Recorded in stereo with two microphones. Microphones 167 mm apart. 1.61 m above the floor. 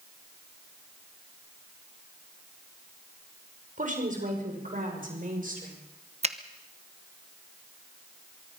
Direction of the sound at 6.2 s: 40° right (ahead or behind).